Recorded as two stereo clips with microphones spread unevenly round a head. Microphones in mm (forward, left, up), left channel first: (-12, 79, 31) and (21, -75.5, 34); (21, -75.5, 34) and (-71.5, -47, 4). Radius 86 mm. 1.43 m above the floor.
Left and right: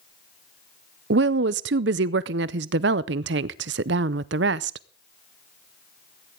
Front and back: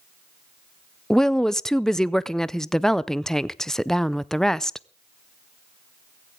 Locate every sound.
1.1 s a woman speaking: 100° right, 0.5 m